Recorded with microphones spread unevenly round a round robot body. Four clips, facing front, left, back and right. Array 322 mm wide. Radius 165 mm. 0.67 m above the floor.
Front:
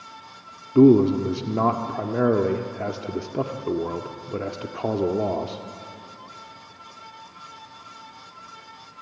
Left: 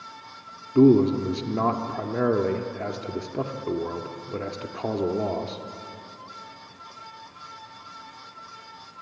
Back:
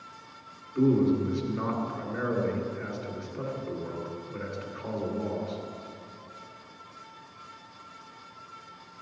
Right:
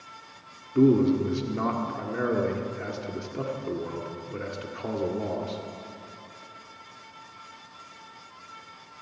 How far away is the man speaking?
About 1.5 m.